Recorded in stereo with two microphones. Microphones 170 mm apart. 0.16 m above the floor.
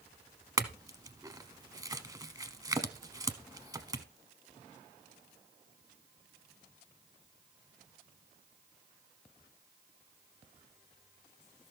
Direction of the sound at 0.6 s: 20° right (ahead or behind).